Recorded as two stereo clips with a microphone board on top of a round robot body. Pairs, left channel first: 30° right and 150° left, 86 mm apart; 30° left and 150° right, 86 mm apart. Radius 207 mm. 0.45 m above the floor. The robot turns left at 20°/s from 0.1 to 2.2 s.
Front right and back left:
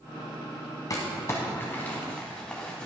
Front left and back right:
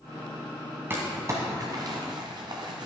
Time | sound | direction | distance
0.9 | crumpling | 85° right | 1.1 m